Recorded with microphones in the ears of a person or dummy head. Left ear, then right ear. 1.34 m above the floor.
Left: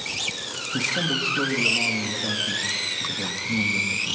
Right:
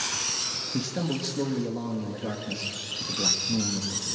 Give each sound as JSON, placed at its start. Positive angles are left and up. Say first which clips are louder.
{"t": 0.7, "sound": "a man speaking", "louder": "left 7 dB", "side_deg": 0, "distance_m": 2.0}